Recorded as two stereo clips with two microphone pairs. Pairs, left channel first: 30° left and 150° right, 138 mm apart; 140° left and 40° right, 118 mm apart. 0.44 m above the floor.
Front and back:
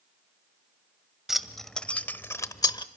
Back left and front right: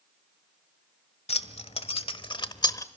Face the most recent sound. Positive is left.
turn(degrees=85)